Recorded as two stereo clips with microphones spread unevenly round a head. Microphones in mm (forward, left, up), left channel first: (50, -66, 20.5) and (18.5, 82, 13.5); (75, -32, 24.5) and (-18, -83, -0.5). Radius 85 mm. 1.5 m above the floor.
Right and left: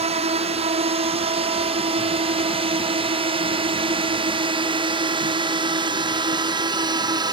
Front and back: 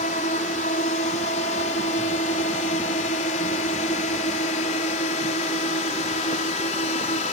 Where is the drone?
55° left; by 7.3 s 40° left.